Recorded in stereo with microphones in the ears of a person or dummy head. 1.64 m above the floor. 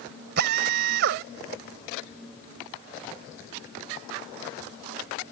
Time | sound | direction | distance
0.4 | a drill | 55° right (ahead or behind) | ?